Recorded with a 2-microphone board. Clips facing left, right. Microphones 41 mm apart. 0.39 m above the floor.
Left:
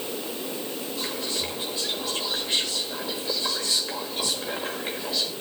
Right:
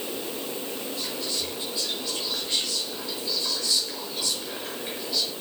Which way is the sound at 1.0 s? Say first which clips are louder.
Left 4 dB; 30° left (ahead or behind).